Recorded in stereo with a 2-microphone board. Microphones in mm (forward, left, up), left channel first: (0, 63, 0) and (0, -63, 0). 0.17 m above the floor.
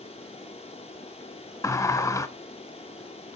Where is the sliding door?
25° left (ahead or behind), 0.7 m.